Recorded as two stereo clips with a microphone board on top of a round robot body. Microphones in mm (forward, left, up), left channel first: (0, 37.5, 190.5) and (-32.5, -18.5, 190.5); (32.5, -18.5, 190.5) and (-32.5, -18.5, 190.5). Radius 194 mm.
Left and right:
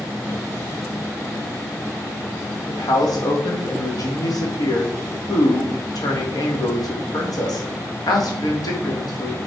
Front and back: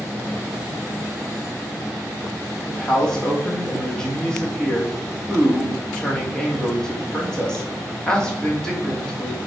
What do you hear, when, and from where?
2.7 s a man speaking: 80° left, 3.5 m